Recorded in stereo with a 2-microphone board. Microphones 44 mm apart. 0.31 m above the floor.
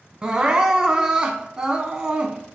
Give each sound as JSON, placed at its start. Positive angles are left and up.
{"t": 0.2, "sound": "crying", "side_deg": -20, "distance_m": 0.8}